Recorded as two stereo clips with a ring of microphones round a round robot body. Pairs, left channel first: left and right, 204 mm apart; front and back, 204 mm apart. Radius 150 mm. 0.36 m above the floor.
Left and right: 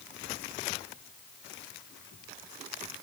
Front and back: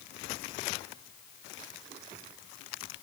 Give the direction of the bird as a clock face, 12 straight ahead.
No bird in this recording.